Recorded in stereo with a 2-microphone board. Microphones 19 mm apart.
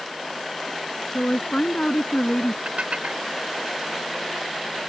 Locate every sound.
1.1 s a woman speaking: 55° left (ahead or behind); by 2.5 s 40° left (ahead or behind)
2.6 s dishes clattering: 85° right